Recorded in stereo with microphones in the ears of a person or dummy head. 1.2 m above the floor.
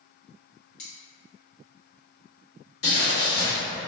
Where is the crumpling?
65° left (ahead or behind), 1.5 m.